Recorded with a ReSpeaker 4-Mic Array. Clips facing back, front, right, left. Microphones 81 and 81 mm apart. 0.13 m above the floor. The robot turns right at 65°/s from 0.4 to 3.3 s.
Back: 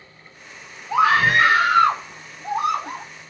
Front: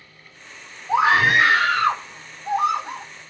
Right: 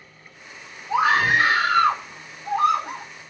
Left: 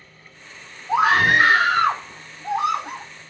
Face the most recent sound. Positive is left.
turn(degrees=-150)